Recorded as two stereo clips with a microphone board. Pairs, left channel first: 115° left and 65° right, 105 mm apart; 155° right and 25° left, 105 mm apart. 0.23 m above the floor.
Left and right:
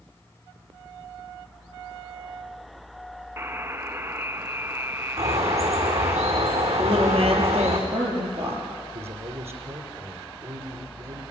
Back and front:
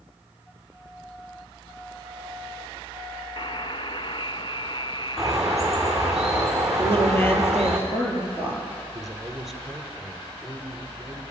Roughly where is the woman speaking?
Right.